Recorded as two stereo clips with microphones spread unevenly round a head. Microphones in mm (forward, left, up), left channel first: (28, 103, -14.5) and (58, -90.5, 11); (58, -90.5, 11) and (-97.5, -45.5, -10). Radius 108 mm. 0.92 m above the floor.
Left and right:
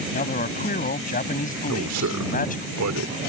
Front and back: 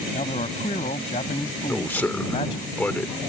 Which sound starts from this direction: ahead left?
A man speaking, at 0.1 s.